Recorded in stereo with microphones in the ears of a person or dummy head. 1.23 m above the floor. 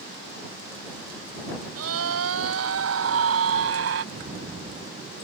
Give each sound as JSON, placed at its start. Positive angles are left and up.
{"t": 1.8, "sound": "a scream", "side_deg": -85}
{"t": 4.1, "sound": "an explosion", "side_deg": -35}